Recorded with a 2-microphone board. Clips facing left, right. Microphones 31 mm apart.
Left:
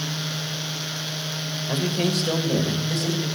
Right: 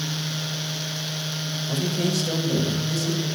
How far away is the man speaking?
About 1.6 m.